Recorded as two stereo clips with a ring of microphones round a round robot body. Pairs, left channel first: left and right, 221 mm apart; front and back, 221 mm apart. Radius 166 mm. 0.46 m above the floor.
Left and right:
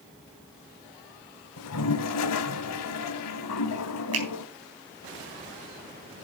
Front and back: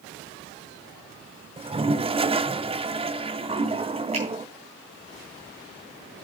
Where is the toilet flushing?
110° left, 0.6 m.